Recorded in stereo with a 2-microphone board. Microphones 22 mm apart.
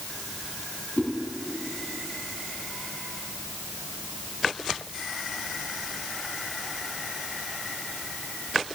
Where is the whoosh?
85° left, 2.5 m.